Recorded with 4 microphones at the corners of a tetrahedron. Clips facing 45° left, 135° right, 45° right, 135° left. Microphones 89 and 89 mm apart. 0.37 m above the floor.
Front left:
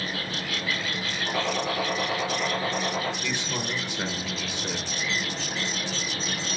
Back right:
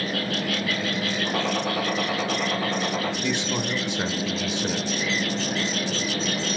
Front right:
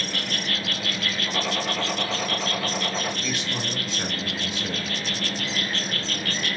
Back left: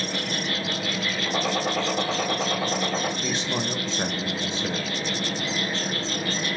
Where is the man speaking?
170° left, 1.0 m.